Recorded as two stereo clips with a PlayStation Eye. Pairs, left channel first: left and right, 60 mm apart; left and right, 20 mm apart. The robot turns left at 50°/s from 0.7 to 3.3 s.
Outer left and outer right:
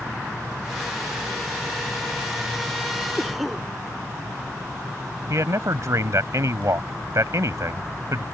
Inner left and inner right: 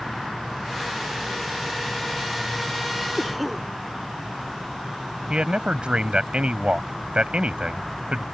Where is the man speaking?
60° right (ahead or behind).